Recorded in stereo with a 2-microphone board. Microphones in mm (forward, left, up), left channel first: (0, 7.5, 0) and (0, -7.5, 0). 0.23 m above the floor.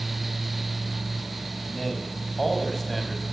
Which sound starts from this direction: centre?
A man speaking, at 1.7 s.